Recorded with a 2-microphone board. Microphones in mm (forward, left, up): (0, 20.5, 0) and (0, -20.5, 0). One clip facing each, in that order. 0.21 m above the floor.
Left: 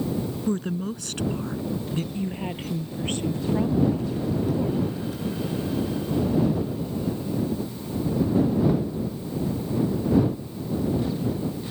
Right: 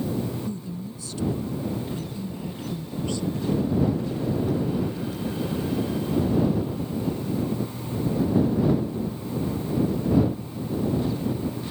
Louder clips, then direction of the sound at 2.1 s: Left 3 dB; 45° left (ahead or behind).